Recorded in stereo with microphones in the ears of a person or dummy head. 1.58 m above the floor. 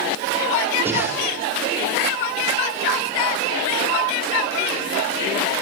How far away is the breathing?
About 4 m.